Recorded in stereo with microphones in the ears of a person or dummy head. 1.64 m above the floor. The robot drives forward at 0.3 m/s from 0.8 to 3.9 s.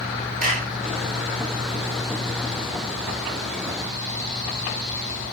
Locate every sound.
0.4 s a clap: 40° right (ahead or behind), 1.8 m